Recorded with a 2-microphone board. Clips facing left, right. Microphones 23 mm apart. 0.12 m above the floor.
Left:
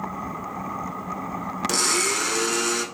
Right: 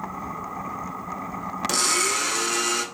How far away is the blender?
About 0.5 m.